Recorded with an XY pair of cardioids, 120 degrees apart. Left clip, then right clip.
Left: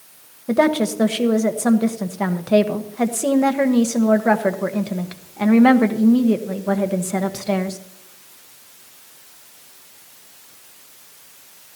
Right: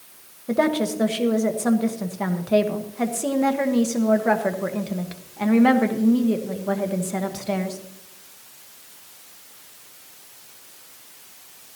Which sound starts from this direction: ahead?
A woman speaking, at 0.5 s.